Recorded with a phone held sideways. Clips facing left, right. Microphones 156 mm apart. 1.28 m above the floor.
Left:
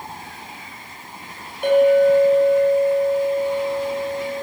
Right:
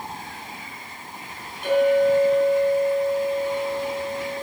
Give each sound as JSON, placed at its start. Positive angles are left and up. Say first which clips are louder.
{"t": 1.6, "sound": "a clink", "louder": "left 4 dB", "side_deg": 70, "distance_m": 4.0}